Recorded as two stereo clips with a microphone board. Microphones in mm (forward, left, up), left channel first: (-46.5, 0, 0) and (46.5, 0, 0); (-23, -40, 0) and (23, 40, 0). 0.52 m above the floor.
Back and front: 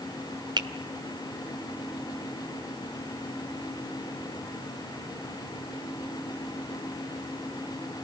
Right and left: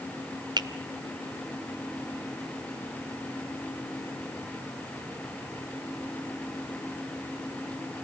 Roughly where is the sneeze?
I don't hear a sneeze.